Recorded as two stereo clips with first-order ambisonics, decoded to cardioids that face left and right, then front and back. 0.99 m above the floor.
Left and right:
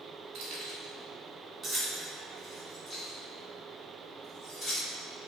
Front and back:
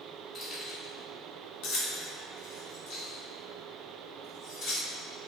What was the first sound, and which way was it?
Keys jangling, 65° right.